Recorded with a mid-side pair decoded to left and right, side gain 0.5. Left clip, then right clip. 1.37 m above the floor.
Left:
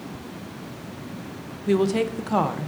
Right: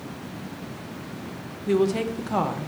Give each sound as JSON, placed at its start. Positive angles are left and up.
{"t": 1.7, "sound": "a woman speaking", "azimuth_deg": 20, "distance_m": 0.9}